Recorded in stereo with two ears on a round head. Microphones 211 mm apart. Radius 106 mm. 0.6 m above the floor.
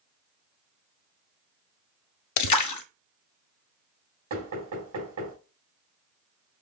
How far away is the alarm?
I don't hear an alarm.